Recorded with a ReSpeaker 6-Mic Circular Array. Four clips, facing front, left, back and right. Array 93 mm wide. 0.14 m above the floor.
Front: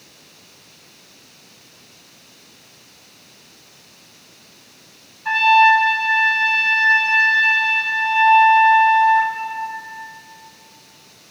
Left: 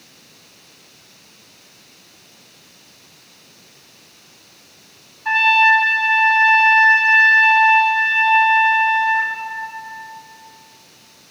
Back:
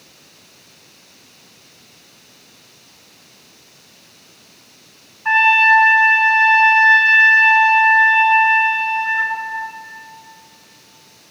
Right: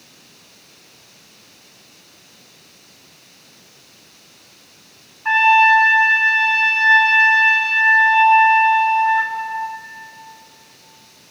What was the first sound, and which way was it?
A trumpet, 130° right.